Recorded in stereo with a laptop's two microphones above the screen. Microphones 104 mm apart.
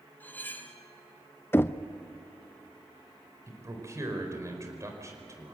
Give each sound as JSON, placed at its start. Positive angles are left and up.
{"t": 0.2, "sound": "cutlery clinking", "side_deg": 20, "distance_m": 2.0}
{"t": 1.5, "sound": "knocking", "side_deg": 20, "distance_m": 0.6}
{"t": 3.5, "sound": "a man speaking", "side_deg": -30, "distance_m": 4.5}